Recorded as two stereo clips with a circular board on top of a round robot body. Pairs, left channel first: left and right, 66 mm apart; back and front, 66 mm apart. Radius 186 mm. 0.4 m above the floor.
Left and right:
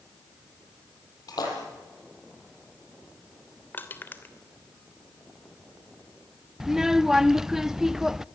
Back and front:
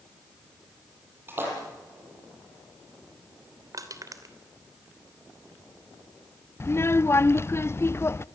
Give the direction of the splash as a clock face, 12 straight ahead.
10 o'clock.